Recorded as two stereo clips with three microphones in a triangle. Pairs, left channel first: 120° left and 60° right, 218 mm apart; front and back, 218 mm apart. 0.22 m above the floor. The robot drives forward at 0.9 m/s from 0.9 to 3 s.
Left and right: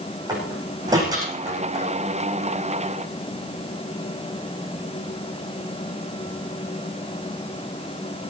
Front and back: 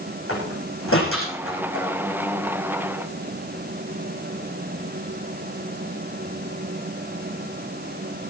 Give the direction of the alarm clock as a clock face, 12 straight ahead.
I don't hear an alarm clock.